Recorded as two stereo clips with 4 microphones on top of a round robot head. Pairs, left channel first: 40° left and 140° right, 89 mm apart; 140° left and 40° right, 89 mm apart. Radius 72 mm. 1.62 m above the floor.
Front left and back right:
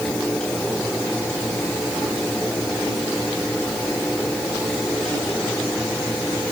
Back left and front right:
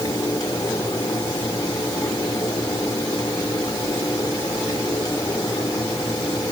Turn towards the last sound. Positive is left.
No sound to turn to.